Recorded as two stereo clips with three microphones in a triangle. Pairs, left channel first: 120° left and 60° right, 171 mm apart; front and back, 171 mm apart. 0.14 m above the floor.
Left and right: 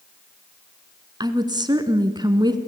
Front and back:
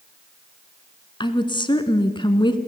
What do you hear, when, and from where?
1.2 s a woman speaking: 25° right, 1.3 m